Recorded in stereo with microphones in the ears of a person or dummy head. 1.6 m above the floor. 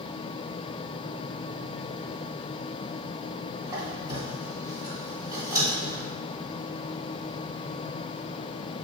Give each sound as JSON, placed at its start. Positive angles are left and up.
{"t": 3.7, "sound": "a squeak", "side_deg": -20, "distance_m": 2.0}